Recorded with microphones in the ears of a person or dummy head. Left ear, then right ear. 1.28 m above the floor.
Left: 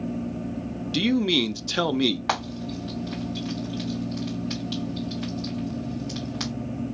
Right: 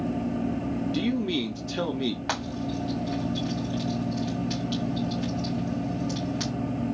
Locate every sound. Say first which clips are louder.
0.9 s a man speaking: left 8 dB; 25° left (ahead or behind), 0.5 m
2.3 s frying: left 2 dB; 5° left (ahead or behind), 2.5 m